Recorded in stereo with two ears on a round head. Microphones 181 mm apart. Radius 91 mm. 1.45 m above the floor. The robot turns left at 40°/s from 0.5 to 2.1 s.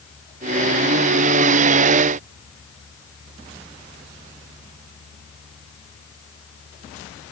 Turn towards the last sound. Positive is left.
No sound to turn to.